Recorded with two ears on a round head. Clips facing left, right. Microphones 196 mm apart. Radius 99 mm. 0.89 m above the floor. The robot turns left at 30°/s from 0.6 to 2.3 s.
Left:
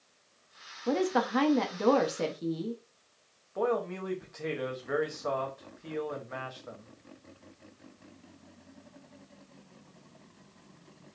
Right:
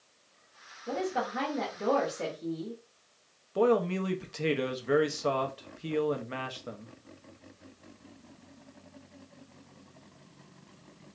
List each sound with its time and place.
0.9 s a woman speaking: 95° left, 0.7 m; by 2.8 s 50° left, 0.7 m
3.5 s a man speaking: 40° right (ahead or behind), 0.6 m